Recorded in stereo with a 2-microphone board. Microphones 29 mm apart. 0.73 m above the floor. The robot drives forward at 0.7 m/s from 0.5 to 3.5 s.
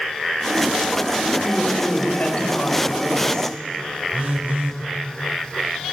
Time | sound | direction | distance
1.4 | a woman speaking | 40° left (ahead or behind) | 3.5 m
4.1 | a phone buzzing | 60° right (ahead or behind) | 3 m